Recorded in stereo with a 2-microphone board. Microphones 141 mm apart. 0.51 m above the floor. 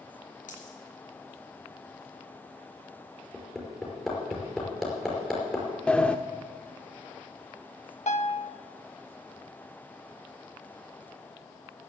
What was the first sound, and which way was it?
A dropped coin, 70° left (ahead or behind).